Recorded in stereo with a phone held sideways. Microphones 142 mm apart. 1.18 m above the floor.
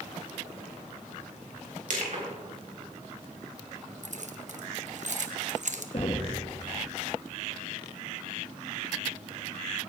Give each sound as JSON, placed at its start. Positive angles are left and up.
{"t": 1.9, "sound": "crushing", "side_deg": -65, "distance_m": 3.0}
{"t": 4.0, "sound": "keys jangling", "side_deg": -60, "distance_m": 0.9}
{"t": 5.9, "sound": "knocking", "side_deg": 45, "distance_m": 1.1}